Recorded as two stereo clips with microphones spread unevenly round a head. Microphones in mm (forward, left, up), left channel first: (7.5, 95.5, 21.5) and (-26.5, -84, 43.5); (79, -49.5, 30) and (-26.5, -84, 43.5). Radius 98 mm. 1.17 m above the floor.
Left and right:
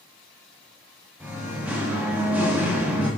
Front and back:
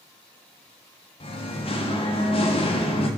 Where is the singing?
20° right, 1.4 m.